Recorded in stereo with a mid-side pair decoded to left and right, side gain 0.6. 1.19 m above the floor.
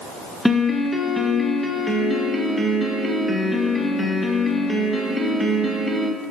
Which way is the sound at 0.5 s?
Straight ahead.